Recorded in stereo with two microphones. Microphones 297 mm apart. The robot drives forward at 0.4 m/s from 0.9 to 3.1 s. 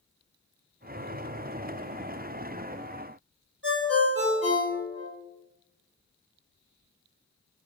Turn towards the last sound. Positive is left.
turn(degrees=-40)  # may be behind; listen again after turning